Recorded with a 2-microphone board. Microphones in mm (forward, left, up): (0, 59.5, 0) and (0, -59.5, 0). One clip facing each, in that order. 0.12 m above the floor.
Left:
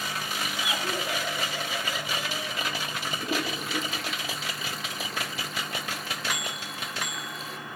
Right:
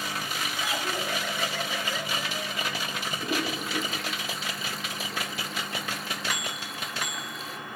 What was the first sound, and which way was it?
Laughter, 15° left (ahead or behind).